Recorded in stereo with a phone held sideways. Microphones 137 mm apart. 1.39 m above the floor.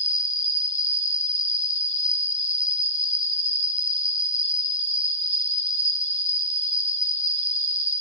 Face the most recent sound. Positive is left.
turn(degrees=60)  # may be behind; listen again after turning